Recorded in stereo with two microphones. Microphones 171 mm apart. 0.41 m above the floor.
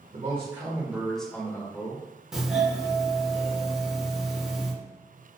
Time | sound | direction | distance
0.1 | a man speaking | 35° right (ahead or behind) | 1.6 m
2.3 | a doorbell | 5° right (ahead or behind) | 1.6 m